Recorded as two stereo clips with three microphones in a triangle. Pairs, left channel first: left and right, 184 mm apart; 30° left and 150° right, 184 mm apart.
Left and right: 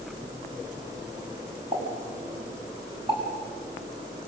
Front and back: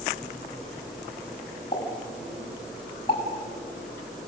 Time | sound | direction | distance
1.7 | a pop | 25° right | 8 m